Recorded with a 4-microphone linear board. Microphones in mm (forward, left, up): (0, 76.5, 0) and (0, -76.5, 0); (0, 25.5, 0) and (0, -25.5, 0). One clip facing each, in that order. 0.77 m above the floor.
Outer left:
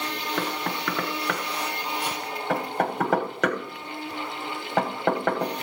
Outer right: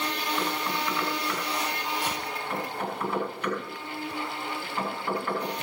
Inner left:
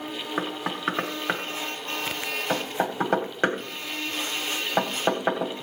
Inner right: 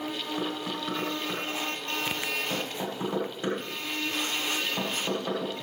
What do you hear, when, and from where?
0.4 s knocking: 80° left, 1.5 m